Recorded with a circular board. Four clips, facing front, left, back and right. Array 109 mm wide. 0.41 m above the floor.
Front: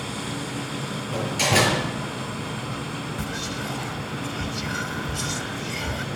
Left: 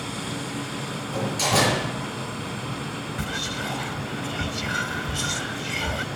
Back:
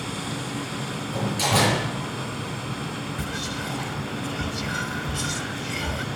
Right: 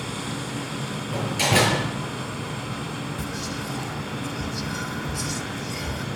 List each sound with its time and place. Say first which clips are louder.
1.1 s a door slam: right 1 dB, front 1 dB; 50° right, 6.5 m
3.2 s whispering: left 1 dB, even; 95° left, 1.1 m